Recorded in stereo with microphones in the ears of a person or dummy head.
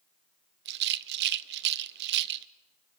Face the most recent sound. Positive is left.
turn(degrees=-55)  # may be behind; listen again after turning